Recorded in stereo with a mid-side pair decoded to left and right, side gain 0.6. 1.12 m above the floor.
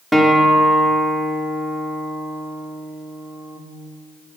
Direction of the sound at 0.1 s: Straight ahead.